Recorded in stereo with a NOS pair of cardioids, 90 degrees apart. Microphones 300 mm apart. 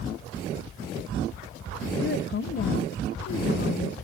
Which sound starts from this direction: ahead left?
A woman speaking, at 2.0 s.